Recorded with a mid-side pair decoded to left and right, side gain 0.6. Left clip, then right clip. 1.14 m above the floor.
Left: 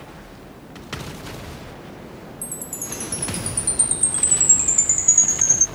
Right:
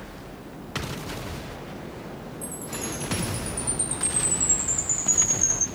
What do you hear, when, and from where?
2.4 s a chime: 45° left, 2.5 m